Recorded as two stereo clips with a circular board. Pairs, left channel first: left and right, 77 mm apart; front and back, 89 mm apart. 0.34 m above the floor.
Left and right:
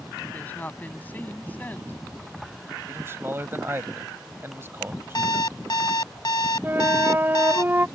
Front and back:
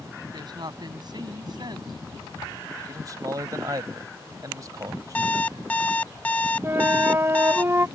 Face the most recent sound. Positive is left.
turn(degrees=-135)